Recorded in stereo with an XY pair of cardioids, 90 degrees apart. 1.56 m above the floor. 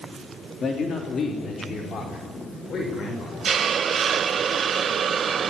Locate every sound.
0.6 s a man speaking: 50° left, 3 m; by 4.4 s 60° left, 7.5 m
3.5 s a hiss: 55° right, 0.6 m